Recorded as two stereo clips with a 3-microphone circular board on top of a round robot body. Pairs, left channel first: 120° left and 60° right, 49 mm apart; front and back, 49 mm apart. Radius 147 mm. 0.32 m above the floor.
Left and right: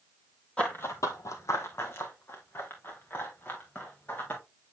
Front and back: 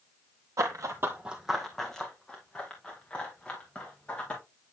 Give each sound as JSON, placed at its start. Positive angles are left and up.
{"t": 0.6, "sound": "running footsteps", "azimuth_deg": -170, "distance_m": 0.7}